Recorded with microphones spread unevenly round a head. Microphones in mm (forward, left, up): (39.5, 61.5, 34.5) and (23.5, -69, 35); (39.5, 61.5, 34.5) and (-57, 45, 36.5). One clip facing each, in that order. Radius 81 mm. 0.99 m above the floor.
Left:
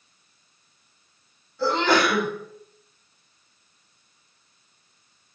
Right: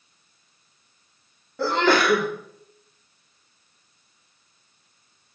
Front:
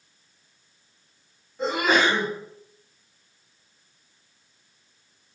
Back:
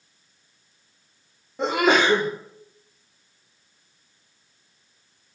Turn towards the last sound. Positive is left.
turn(degrees=-140)